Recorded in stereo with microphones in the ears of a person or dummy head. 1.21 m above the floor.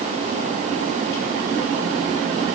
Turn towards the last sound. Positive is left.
No sound to turn to.